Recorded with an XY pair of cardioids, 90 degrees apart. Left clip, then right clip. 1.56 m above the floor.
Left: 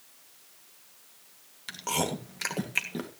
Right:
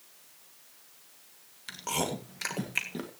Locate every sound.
1.7 s chewing: 15° left, 2 m